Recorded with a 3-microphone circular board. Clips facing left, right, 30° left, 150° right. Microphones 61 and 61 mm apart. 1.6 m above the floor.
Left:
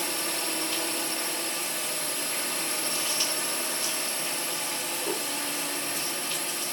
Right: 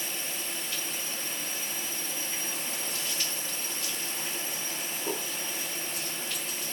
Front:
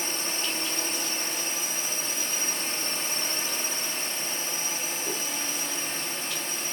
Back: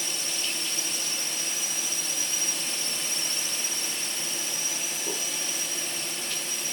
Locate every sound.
0.0 s a drone: 80° left